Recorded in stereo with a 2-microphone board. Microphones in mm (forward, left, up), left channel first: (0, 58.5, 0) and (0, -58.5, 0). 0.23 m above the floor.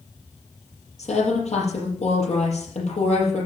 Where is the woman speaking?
65° left (ahead or behind), 5 m.